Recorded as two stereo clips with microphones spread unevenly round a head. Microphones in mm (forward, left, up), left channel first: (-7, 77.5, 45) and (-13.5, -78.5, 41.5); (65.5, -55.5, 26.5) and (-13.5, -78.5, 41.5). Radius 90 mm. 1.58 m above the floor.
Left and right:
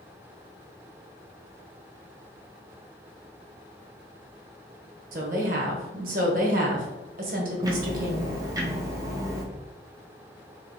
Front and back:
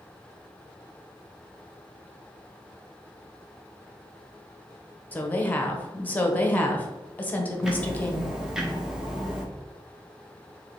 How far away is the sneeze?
No sneeze in this recording.